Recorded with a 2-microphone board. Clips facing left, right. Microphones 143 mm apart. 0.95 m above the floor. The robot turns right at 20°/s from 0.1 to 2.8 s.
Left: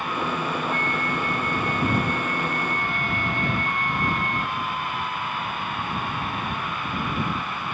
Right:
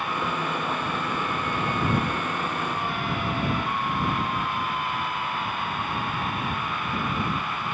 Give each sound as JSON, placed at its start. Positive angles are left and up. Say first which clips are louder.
{"t": 0.7, "sound": "a flute", "louder": "left 2 dB", "azimuth_deg": 65}